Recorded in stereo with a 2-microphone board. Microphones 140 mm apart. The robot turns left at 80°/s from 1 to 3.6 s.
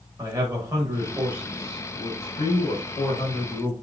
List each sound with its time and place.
0.2 s a man speaking: 130° right, 1.0 m; by 3.7 s 25° left, 1.0 m